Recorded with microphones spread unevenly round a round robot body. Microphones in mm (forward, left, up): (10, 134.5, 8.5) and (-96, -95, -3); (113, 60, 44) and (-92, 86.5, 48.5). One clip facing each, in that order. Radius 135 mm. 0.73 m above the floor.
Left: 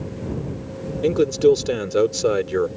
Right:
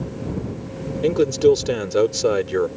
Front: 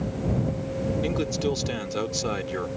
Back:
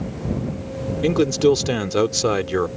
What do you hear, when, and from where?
1.0 s a man speaking: 155° left